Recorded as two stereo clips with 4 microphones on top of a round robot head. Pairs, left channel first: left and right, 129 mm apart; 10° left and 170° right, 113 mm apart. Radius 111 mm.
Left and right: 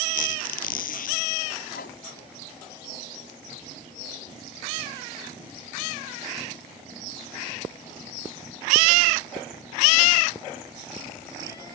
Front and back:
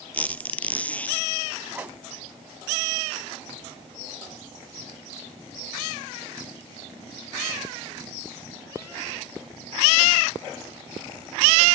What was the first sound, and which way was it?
A squeak, 85° left.